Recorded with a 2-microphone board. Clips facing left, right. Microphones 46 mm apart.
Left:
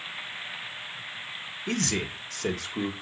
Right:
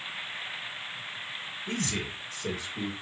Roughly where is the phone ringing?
I don't hear a phone ringing.